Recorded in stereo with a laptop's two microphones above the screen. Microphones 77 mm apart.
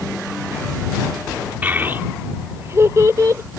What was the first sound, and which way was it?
A child speaking, 25° right (ahead or behind).